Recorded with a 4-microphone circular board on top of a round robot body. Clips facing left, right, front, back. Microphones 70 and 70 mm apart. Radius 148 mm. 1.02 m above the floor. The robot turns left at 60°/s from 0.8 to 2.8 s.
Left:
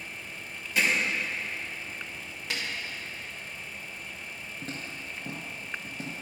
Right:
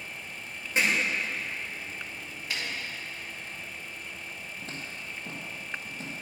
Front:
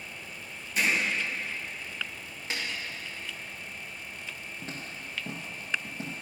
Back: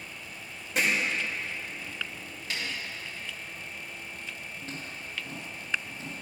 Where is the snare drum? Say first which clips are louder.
Even, front 1 dB; 65° left, 1.7 m; by 2.6 s 55° left, 1.7 m.